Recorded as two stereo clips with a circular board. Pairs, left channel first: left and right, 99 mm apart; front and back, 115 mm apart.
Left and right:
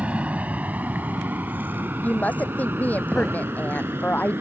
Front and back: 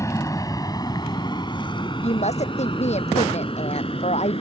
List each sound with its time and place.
0.0 s an aircraft: 25° right
2.0 s a woman speaking: 15° left